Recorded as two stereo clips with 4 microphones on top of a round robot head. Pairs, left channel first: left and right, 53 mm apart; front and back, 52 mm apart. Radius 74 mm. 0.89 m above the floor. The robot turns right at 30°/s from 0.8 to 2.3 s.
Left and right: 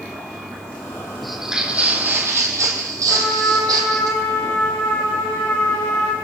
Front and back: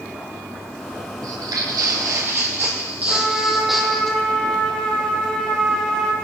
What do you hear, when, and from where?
1.2 s footsteps: straight behind, 2 m; by 4.1 s 80° right, 2.0 m
3.1 s a trumpet: 75° left, 3.5 m